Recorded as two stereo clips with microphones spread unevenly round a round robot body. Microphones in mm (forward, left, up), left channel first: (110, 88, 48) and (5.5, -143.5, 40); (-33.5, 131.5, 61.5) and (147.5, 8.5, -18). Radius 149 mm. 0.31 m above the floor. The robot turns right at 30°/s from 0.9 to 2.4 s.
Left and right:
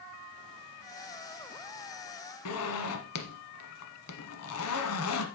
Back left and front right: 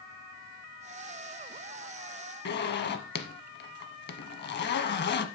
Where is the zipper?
100° left, 1.2 m.